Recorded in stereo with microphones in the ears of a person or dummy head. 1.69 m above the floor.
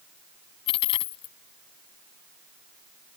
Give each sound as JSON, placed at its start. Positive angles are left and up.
{"t": 0.7, "sound": "a dropped coin", "side_deg": 30}